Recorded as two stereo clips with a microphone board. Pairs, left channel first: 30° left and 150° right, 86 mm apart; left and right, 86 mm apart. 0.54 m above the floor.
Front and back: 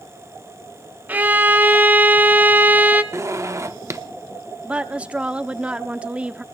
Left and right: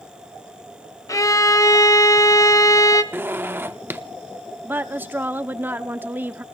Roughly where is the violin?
Behind left.